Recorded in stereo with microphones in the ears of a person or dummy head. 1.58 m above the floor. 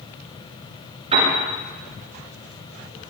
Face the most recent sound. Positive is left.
turn(degrees=-35)  # may be behind; listen again after turning